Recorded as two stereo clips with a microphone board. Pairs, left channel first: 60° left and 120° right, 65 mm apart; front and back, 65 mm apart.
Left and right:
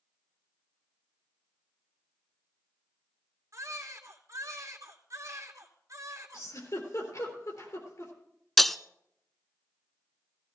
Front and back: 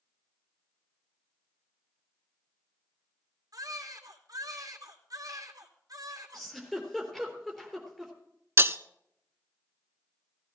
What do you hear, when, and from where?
3.5 s a baby crying: 155° right, 2 m
6.3 s a giggle: 85° left, 3.5 m
8.6 s breaking glass: 145° left, 0.6 m